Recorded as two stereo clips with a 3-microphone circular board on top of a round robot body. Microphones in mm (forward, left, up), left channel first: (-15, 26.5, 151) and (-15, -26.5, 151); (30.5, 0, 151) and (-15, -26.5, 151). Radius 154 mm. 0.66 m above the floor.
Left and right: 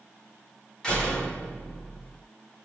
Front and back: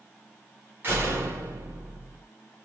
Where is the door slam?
160° left, 6.5 m.